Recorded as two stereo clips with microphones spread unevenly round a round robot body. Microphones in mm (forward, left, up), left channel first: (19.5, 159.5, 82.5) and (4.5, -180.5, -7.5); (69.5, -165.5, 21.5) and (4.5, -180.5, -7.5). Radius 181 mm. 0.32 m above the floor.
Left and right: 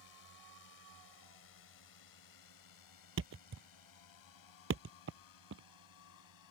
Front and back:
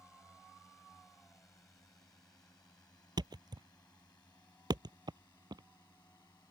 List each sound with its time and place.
0.0 s a drone: 85° left; by 6.5 s 55° left
3.2 s a thud: 150° right